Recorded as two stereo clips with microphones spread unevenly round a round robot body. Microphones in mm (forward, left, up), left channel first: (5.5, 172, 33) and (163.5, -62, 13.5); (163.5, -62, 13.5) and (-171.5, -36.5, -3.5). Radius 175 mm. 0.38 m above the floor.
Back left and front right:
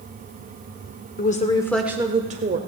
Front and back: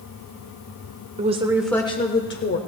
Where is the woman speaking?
145° left, 1.1 m; by 2.6 s 30° right, 1.2 m.